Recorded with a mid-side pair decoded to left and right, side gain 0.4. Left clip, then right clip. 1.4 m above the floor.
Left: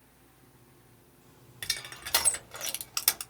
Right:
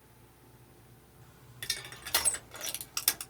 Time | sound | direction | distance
1.6 | crushing | 40° left | 1.1 m